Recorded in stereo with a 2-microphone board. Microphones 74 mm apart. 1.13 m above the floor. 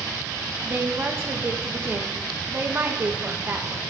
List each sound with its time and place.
0.7 s a woman speaking: 30° right (ahead or behind), 1.3 m